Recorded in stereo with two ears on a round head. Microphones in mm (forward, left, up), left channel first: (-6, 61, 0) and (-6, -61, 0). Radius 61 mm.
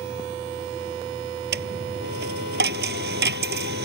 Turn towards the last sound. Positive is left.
turn(degrees=-85)